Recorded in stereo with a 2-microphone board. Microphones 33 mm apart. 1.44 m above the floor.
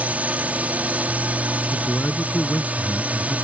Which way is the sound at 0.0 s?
45° right (ahead or behind).